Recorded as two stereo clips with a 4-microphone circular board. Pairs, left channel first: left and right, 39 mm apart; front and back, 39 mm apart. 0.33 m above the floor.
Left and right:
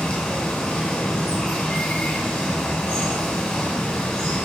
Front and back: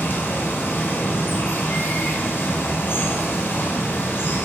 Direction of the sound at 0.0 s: 30° left.